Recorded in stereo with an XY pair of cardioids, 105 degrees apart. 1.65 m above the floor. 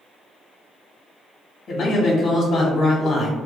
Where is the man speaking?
45° left, 0.7 m.